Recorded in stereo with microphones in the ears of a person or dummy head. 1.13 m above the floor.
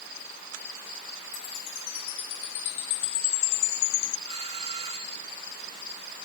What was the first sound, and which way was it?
A chime, 70° left (ahead or behind).